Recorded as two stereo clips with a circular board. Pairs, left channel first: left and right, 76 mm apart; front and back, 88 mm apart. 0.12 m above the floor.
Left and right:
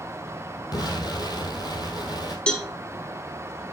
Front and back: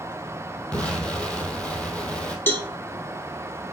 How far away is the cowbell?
About 1.2 m.